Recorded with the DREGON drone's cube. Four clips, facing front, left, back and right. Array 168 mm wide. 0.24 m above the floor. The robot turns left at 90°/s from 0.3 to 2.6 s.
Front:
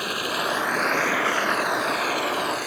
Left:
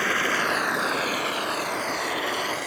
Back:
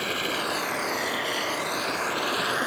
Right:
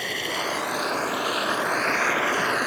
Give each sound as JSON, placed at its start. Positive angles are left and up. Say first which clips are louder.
{"t": 0.0, "sound": "running water", "louder": "left 5 dB, front 2 dB", "azimuth_deg": 80}